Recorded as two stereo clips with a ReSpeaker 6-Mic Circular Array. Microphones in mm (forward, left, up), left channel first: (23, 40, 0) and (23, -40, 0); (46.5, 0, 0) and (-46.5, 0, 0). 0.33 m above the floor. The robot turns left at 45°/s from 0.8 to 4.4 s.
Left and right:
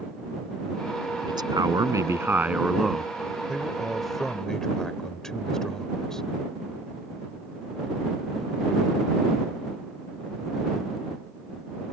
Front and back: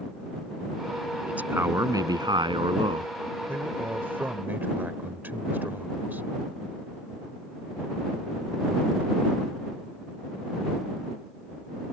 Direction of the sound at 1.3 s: 105° right.